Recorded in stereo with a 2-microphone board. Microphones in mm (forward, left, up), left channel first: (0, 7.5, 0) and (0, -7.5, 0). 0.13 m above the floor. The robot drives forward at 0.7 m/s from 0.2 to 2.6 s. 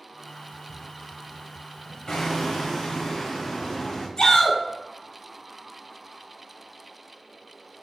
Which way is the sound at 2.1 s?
60° left (ahead or behind).